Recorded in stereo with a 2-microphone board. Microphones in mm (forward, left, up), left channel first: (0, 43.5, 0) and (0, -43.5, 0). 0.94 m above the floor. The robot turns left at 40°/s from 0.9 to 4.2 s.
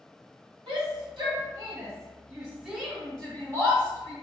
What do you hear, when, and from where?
0.7 s a shout: 70° right (ahead or behind), 1.7 m; by 4.1 s 45° left (ahead or behind), 1.7 m